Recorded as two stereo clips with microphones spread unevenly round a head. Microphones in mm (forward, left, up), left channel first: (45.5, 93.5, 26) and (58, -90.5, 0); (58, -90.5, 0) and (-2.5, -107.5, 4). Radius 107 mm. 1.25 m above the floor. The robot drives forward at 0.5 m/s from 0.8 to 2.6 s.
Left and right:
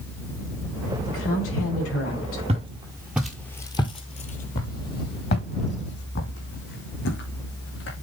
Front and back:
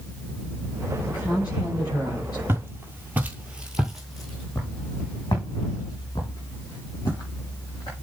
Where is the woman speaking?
75° left, 4.5 m; by 2.4 s 85° left, 4.5 m.